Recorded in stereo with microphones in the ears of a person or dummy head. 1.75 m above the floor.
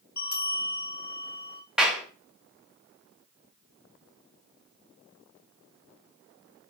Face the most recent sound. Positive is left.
turn(degrees=-10)  # may be behind; listen again after turning